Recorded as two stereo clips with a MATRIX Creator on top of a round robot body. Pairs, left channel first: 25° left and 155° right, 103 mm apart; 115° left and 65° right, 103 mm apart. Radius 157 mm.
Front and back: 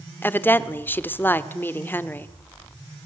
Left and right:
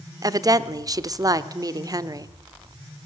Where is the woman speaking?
40° right, 1.1 m.